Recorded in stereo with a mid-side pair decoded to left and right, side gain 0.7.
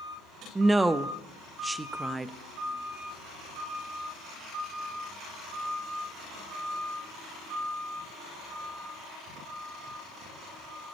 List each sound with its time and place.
0.6 s a woman speaking: 15° right, 0.5 m